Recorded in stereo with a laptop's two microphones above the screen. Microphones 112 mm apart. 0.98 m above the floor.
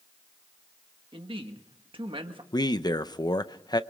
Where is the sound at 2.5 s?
35° left (ahead or behind), 0.8 m.